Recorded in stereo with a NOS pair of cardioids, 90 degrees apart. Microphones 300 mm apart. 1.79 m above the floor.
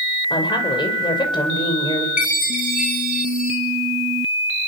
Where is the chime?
25° left, 8 m.